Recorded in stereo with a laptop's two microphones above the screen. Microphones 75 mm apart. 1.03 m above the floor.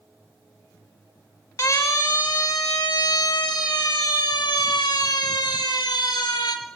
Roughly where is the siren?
Left.